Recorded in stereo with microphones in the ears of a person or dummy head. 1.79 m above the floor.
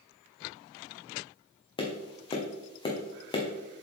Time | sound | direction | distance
1.8 | tapping | 25° left (ahead or behind) | 1.1 m